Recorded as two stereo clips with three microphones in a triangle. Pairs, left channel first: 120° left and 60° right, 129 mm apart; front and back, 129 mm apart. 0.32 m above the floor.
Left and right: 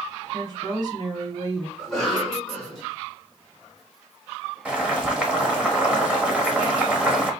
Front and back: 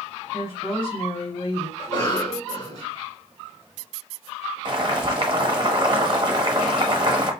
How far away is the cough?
About 1.9 m.